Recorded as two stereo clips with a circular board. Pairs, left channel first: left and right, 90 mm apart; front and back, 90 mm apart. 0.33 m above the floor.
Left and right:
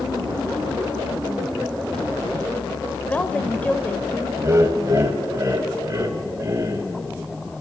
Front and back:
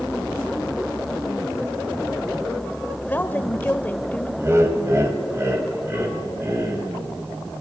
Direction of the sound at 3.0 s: 40° left.